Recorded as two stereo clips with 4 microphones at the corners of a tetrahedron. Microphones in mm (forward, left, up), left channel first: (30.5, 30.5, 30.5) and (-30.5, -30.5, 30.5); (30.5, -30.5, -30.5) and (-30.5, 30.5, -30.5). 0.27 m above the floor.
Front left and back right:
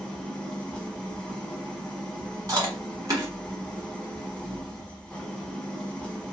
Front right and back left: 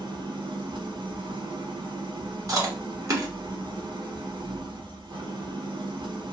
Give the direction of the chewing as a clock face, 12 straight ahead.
6 o'clock.